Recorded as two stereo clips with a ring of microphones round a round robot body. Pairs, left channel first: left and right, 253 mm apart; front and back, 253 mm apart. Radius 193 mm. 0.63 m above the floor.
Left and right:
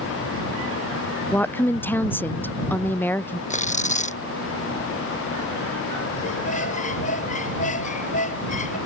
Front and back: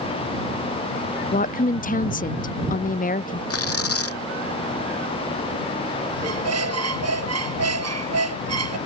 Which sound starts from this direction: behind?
A squeak, at 6.2 s.